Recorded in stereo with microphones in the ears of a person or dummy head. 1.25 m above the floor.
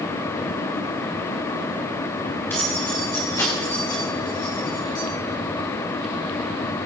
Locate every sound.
2.5 s keys jangling: 10° left (ahead or behind), 4.5 m; by 5.0 s 25° left (ahead or behind), 6 m